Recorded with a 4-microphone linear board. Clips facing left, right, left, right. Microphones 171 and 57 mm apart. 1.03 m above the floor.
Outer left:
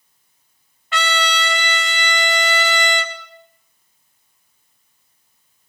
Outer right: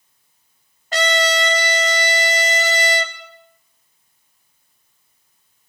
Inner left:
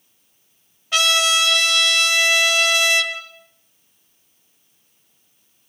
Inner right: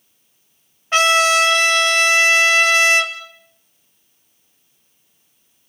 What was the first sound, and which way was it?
A trumpet, 40° right (ahead or behind).